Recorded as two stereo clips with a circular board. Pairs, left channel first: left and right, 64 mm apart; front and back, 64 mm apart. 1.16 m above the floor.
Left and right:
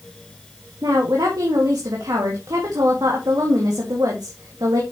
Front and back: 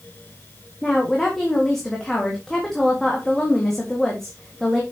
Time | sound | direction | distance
0.8 | a woman speaking | 85° right | 1.8 m